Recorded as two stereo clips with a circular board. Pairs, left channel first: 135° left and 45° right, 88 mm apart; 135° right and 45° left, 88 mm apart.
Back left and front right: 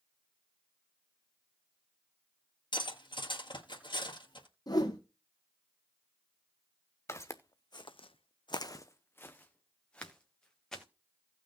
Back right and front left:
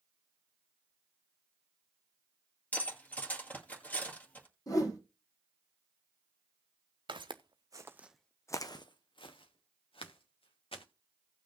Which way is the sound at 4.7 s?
Straight behind.